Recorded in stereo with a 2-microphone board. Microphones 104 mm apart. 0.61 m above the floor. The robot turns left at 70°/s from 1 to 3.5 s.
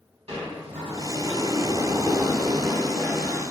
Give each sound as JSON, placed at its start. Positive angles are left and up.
{"t": 0.3, "sound": "a sliding door", "azimuth_deg": -80, "distance_m": 1.6}